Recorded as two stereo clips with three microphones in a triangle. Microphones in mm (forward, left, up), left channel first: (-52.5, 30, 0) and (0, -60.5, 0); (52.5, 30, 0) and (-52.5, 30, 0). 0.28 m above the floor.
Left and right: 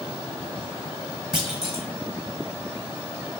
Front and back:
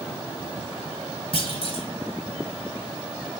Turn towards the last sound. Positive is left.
turn(degrees=25)